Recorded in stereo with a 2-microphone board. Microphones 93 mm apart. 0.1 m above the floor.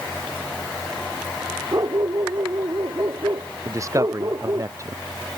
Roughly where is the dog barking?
Right.